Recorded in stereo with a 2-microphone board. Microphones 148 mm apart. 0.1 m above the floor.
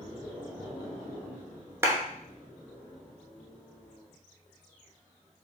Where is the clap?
20° right (ahead or behind), 1.0 m.